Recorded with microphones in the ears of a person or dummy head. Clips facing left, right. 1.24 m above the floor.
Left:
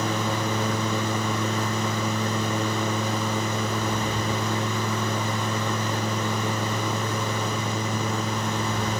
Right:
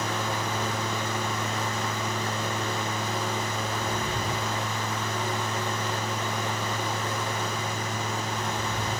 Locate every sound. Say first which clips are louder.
0.0 s a fan: left 4 dB; 70° left (ahead or behind)